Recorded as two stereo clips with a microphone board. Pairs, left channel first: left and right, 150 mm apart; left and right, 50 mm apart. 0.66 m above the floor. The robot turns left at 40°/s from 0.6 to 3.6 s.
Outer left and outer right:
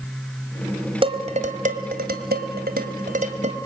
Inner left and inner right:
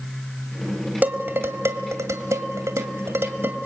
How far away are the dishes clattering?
About 2.5 m.